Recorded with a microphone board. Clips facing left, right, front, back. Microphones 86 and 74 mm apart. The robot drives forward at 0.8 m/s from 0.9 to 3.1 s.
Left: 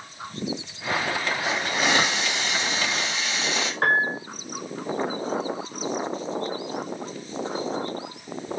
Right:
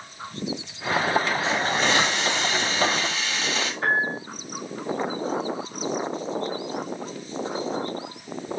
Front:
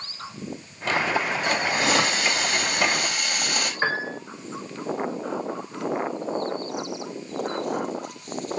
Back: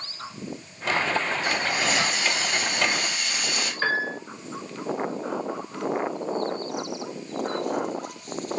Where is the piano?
70° left, 1.9 m.